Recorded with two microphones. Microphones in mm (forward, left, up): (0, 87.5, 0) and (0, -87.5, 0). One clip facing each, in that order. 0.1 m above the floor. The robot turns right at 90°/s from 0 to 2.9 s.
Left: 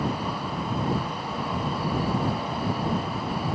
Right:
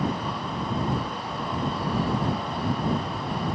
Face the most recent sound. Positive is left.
No sound to turn to.